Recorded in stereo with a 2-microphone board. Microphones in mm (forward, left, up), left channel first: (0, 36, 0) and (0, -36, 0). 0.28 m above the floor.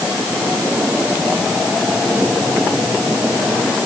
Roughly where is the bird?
No bird in this recording.